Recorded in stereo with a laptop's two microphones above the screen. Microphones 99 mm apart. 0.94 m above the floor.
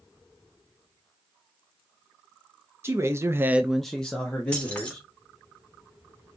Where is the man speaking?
25° right (ahead or behind), 1.0 m; by 5.1 s 15° left (ahead or behind), 2.5 m.